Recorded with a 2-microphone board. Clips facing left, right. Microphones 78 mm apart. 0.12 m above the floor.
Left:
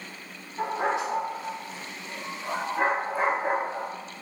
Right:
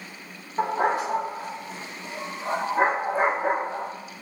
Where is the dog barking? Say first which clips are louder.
Right 4 dB; 40° right (ahead or behind), 5.5 m; by 3.9 s 20° right (ahead or behind), 4.5 m.